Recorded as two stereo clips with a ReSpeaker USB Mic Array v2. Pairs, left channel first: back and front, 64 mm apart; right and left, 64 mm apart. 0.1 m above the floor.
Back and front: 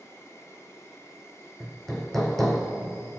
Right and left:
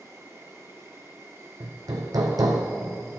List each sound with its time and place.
0.0 s an insect: 135° left, 3 m
1.6 s hammering: 95° left, 1.4 m